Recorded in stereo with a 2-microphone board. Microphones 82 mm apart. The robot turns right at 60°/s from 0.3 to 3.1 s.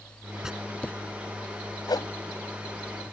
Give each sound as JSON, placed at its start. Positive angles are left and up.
{"t": 0.4, "sound": "writing", "side_deg": -10}
{"t": 1.9, "sound": "a whoosh", "side_deg": 55}